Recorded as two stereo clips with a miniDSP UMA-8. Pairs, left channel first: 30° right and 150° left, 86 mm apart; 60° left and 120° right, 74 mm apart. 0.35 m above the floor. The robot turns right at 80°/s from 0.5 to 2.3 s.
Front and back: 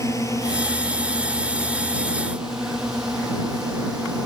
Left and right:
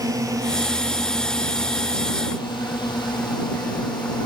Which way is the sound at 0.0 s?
80° right.